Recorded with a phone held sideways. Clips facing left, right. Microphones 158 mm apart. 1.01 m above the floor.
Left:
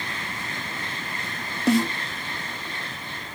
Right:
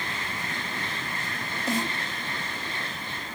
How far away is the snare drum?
About 1.2 m.